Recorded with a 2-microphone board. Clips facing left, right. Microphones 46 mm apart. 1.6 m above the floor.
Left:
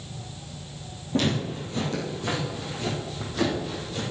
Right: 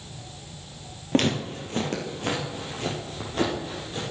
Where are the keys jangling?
I don't hear keys jangling.